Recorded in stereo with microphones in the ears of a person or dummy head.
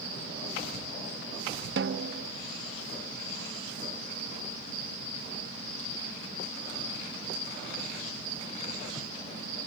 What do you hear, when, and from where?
1.8 s a snare drum: 65° right (ahead or behind)